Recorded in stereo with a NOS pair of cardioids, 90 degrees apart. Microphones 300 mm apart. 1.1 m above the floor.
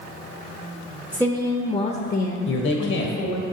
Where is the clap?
I don't hear a clap.